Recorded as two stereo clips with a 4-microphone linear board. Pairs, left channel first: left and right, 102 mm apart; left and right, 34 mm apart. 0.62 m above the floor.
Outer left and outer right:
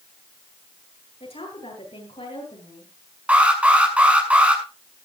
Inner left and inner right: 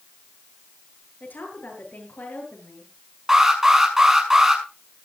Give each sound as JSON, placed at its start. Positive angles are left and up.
{"t": 1.2, "sound": "a woman speaking", "side_deg": 70, "distance_m": 9.5}
{"t": 3.3, "sound": "an alarm", "side_deg": -10, "distance_m": 6.5}